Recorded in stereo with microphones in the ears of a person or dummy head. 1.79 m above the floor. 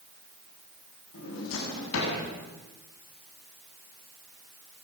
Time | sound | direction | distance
1.1 | a drawer | 80° left | 7.5 m